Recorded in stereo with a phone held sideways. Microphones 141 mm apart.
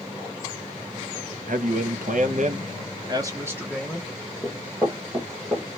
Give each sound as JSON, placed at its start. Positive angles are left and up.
{"t": 1.5, "sound": "a man speaking", "side_deg": -70, "distance_m": 0.9}
{"t": 4.4, "sound": "running footsteps", "side_deg": 0, "distance_m": 1.2}